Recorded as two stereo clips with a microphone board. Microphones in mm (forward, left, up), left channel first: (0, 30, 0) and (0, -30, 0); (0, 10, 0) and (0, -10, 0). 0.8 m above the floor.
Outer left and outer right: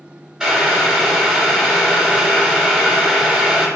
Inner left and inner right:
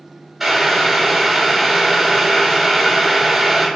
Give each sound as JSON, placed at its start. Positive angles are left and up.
{"t": 0.4, "sound": "boiling", "side_deg": -15, "distance_m": 1.6}